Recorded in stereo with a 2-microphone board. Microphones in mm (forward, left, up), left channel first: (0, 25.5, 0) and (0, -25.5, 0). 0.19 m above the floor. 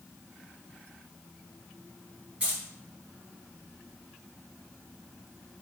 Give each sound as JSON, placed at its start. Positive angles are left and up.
{"t": 2.4, "sound": "keys jangling", "side_deg": -20, "distance_m": 1.9}